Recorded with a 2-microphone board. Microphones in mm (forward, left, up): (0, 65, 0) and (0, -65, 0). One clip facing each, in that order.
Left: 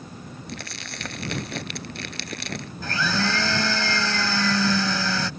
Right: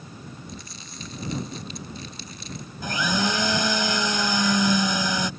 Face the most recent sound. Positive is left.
turn(degrees=-15)  # may be behind; listen again after turning